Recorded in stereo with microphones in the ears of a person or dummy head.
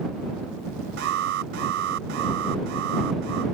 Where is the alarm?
65° right (ahead or behind).